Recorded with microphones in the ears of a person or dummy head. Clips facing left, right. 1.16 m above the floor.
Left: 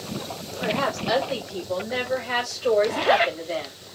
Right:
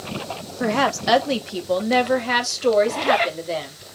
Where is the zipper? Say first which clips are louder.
Even; 5° left (ahead or behind), 0.7 m.